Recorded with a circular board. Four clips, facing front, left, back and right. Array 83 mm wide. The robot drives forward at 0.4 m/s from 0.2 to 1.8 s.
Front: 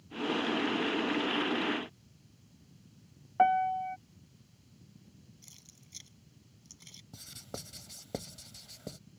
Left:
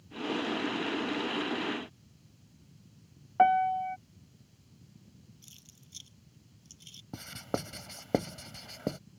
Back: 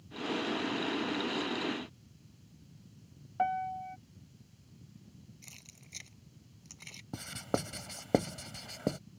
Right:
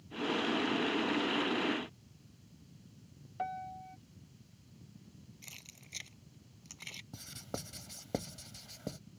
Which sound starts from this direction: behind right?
Keys jangling, at 5.4 s.